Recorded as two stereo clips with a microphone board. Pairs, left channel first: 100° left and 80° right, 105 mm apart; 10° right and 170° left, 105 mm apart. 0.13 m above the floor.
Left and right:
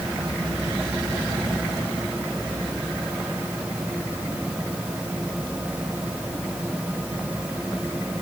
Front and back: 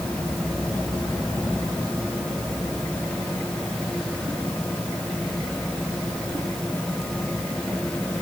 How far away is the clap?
I don't hear a clap.